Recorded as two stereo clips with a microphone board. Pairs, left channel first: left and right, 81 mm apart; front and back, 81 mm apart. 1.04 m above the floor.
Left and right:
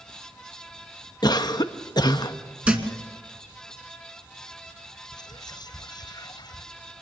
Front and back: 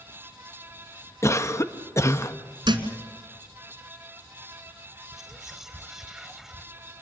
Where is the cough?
55° left, 0.9 m.